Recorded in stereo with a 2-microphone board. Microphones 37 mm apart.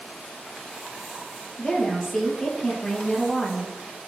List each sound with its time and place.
1.6 s a woman speaking: 15° left (ahead or behind), 4 m